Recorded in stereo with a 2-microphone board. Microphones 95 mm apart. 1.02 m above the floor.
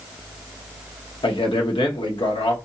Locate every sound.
1.2 s a man speaking: 65° left (ahead or behind), 1.2 m